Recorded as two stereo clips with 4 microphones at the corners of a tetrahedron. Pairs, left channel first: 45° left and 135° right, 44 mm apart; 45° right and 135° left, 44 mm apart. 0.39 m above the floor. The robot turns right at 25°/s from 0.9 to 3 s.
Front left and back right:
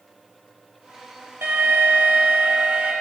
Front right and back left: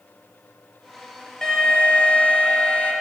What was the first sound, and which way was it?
An alarm, 120° right.